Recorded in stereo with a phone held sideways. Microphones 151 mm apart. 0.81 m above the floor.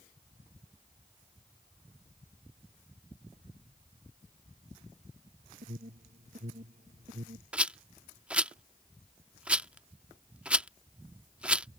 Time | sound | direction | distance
5.6 | an alarm | 70° right (ahead or behind) | ?
7.5 | a rattle | 5° right (ahead or behind) | ?